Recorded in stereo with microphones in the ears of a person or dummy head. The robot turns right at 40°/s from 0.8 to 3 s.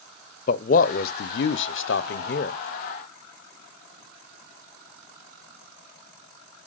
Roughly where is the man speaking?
Ahead left.